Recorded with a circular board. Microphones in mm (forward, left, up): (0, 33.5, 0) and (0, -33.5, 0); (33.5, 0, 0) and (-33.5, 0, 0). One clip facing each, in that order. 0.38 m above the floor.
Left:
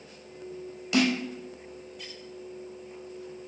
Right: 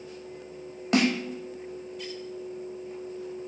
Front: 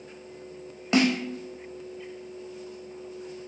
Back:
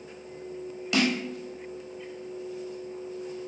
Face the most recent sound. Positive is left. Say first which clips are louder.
# right 1 dB, front 3 dB
turn(degrees=-50)